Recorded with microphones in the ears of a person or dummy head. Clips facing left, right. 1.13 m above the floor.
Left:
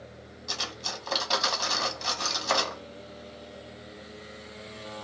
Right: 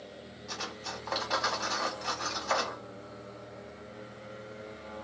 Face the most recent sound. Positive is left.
turn(degrees=55)  # may be behind; listen again after turning